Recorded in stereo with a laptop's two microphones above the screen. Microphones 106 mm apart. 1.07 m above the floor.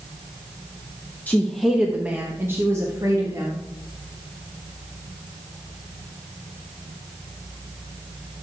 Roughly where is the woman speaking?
Centre.